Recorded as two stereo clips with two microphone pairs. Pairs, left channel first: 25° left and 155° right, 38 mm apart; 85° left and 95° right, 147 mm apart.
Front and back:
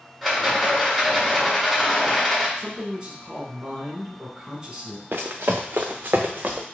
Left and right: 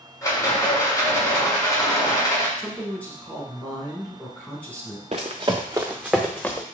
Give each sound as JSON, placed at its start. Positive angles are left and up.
{"t": 0.2, "sound": "a rattle", "azimuth_deg": 110, "distance_m": 1.4}
{"t": 2.6, "sound": "a man speaking", "azimuth_deg": 155, "distance_m": 1.3}
{"t": 5.1, "sound": "running footsteps", "azimuth_deg": -135, "distance_m": 0.8}